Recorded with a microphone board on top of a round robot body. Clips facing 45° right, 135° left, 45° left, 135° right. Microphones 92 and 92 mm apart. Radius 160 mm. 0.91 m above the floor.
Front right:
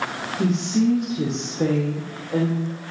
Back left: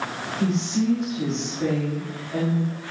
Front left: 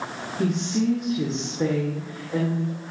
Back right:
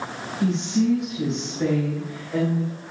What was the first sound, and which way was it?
A woman speaking, 10° left.